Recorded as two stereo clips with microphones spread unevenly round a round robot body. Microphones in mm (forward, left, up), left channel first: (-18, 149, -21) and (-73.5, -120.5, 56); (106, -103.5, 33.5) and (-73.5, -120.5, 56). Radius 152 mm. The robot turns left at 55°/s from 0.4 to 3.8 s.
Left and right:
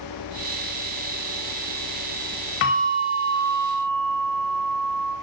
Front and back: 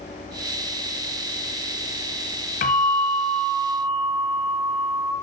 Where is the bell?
45° left, 0.9 m; by 5.1 s 20° right, 0.9 m.